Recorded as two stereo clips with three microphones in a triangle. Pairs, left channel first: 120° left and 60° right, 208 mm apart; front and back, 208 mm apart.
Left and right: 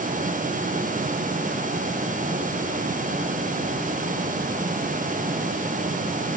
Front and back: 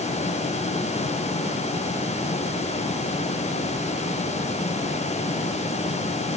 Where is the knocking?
No knocking in this recording.